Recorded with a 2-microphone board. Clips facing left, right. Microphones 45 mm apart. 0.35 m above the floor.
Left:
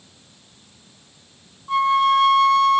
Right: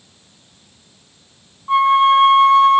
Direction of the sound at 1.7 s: 30° right (ahead or behind).